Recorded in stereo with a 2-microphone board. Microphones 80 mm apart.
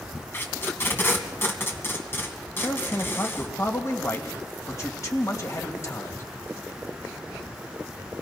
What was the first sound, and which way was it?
Tape being pulled, 30° left (ahead or behind).